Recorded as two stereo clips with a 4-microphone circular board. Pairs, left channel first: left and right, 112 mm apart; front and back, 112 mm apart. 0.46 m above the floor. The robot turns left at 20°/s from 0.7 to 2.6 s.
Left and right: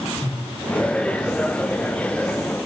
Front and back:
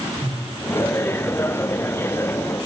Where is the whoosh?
175° left, 4.5 m.